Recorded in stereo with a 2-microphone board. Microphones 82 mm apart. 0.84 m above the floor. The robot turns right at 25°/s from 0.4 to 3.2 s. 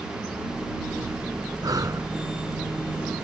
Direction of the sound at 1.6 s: 50° right (ahead or behind).